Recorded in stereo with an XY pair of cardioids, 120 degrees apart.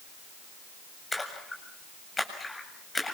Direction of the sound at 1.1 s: 20° left.